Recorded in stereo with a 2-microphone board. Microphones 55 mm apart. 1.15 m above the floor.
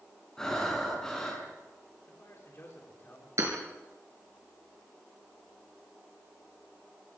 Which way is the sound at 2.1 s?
45° left (ahead or behind).